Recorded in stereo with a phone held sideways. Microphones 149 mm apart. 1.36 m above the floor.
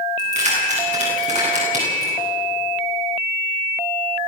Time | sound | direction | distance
0.2 | keys jangling | 50° right (ahead or behind) | 10 m